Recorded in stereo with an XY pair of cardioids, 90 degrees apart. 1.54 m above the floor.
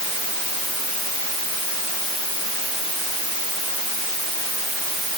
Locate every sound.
Only background noise.